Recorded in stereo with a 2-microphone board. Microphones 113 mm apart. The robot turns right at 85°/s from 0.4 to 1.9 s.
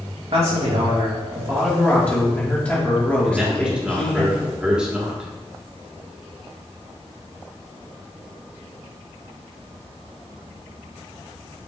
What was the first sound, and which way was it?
A man speaking, 115° right.